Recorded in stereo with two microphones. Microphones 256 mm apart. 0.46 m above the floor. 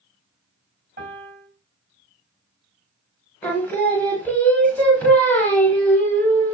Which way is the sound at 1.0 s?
40° right (ahead or behind).